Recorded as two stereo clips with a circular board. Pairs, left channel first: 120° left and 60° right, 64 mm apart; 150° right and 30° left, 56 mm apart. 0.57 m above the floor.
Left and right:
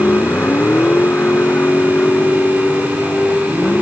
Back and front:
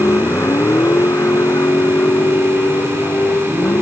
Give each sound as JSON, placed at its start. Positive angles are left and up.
{"t": 0.0, "sound": "a vehicle", "azimuth_deg": 180}